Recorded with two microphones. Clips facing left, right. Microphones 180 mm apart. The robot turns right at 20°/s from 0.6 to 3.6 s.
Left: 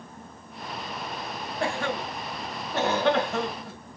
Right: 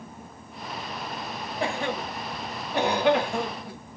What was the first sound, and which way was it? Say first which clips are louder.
A cough: even; 20° right (ahead or behind).